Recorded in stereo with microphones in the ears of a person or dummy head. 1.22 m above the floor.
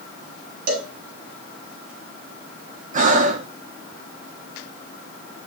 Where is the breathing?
45° right (ahead or behind), 1.4 m.